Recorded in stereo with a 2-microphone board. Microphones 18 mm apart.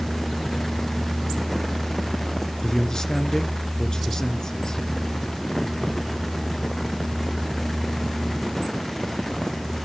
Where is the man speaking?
35° left (ahead or behind), 1.8 m.